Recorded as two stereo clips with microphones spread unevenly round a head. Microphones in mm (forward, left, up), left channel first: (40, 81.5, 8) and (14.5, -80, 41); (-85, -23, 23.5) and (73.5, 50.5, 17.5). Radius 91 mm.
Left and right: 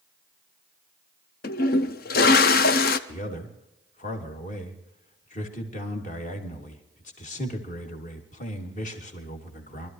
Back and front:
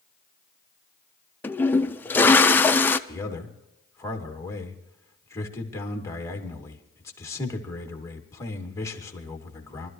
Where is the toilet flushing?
125° left, 0.6 m.